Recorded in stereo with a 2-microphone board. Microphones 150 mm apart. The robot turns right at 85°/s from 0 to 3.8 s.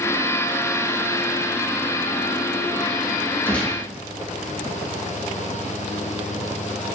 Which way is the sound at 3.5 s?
15° left (ahead or behind).